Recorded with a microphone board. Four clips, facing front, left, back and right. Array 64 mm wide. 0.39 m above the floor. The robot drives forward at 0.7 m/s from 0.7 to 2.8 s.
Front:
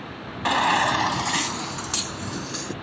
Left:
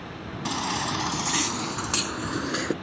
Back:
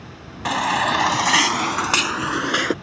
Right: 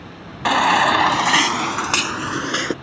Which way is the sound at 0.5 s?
90° right.